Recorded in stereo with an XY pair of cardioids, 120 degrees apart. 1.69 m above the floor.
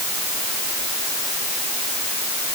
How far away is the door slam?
I don't hear a door slam.